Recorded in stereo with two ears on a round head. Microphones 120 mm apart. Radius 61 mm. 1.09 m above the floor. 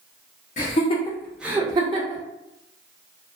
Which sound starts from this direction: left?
Laughter, at 0.6 s.